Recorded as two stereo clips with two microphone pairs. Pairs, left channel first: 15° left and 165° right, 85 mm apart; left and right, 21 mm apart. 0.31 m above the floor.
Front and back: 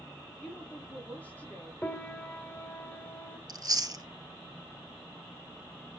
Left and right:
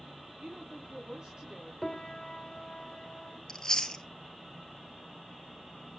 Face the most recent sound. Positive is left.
turn(degrees=150)